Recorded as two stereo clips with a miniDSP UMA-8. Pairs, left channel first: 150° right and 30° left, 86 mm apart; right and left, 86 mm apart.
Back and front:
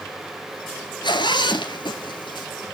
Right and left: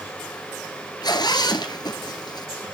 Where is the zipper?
125° right, 2 m.